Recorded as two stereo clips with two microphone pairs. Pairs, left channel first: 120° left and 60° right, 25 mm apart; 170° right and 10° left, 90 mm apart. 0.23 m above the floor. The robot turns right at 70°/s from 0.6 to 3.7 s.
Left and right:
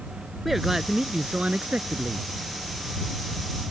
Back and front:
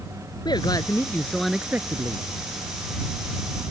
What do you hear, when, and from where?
0.5 s a man speaking: 140° right; by 2.2 s 25° right